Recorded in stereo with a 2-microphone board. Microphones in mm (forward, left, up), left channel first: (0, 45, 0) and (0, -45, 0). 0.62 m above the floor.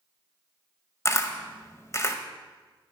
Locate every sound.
1.1 s a camera shutter: 35° left (ahead or behind), 0.8 m